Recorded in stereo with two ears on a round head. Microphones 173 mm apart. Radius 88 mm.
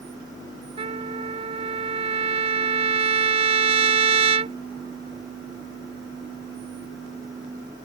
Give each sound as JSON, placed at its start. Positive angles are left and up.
{"t": 0.8, "sound": "a trumpet", "side_deg": -30}